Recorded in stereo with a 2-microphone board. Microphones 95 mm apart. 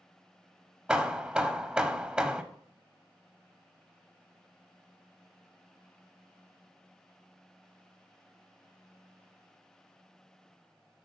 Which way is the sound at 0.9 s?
10° right (ahead or behind).